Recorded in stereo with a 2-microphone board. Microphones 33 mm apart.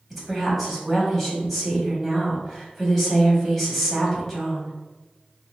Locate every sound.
0.1 s a woman speaking: 5° left (ahead or behind), 1.0 m